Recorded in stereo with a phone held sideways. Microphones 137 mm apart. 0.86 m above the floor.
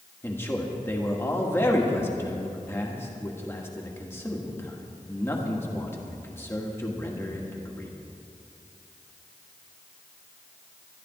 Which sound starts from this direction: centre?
A man speaking, at 0.2 s.